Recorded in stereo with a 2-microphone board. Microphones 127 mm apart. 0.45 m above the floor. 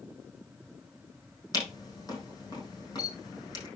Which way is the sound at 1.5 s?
30° left (ahead or behind).